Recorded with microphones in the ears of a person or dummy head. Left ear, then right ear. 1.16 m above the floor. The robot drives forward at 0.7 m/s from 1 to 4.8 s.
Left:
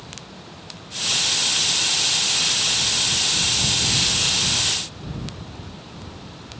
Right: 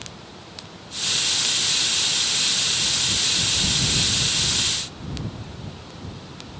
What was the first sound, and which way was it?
Only background noise.